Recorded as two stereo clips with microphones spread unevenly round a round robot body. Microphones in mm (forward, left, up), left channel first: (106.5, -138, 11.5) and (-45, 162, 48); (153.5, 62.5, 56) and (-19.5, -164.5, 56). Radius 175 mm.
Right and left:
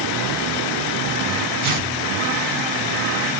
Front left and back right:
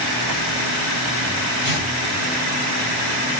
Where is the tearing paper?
115° left, 2.5 m.